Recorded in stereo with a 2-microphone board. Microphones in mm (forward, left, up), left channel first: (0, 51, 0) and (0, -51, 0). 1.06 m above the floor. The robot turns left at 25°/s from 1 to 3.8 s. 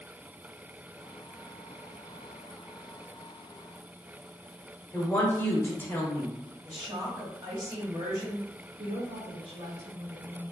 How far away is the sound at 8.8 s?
About 1.3 m.